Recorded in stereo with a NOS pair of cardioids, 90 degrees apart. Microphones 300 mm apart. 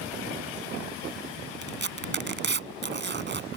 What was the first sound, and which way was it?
Tearing paper, 40° right.